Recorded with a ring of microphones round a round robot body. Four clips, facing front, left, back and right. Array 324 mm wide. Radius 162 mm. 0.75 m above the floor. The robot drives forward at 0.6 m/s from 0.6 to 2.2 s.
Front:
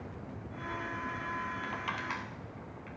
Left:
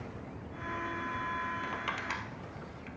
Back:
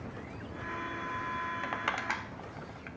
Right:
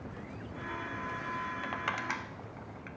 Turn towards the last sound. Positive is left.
turn(degrees=-165)